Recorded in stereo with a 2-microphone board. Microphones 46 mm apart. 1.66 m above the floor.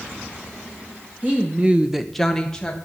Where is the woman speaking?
30° right (ahead or behind), 1.0 m; by 2.9 s 15° left (ahead or behind), 1.5 m.